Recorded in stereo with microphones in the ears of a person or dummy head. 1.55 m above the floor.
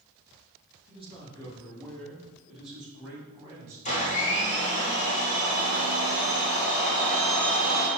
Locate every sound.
0.9 s a man speaking: 30° left (ahead or behind), 2.5 m; by 3.8 s 15° right (ahead or behind), 5 m
3.9 s a blender: 35° left (ahead or behind), 1.8 m